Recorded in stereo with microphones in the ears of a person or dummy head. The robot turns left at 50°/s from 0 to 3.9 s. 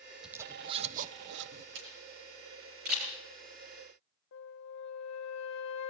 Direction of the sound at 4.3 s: 65° left (ahead or behind).